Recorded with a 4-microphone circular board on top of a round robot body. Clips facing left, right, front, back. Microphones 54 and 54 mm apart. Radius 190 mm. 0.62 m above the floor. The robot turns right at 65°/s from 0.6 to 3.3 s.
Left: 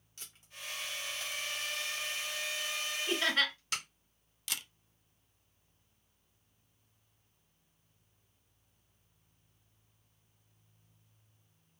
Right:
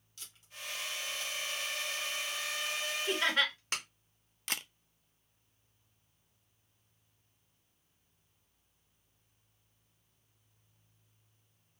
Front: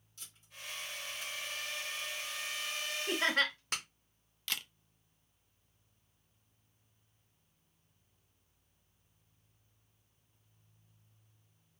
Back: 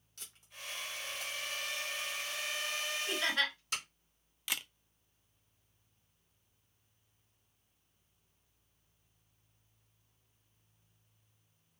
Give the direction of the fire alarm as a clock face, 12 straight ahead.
I don't hear a fire alarm.